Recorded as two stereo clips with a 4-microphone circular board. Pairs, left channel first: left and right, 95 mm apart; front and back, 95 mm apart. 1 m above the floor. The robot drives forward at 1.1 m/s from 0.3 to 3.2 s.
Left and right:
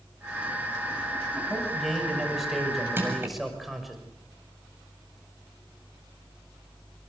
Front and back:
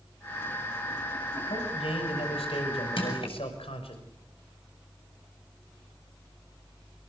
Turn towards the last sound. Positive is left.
turn(degrees=-25)